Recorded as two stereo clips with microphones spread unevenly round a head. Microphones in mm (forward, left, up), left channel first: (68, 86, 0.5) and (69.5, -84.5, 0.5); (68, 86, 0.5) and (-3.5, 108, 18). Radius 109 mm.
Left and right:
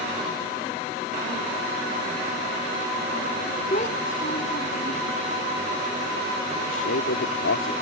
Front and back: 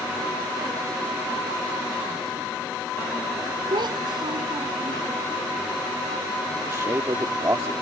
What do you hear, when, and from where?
3.7 s a child speaking: 150° left; by 5.0 s 140° left
6.7 s a man speaking: 115° left